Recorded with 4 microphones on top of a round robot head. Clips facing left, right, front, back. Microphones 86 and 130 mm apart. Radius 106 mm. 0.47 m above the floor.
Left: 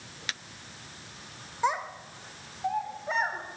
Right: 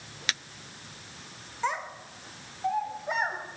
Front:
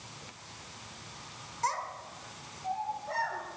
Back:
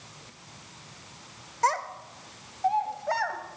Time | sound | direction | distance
1.6 | a child speaking | 165° left | 1.3 m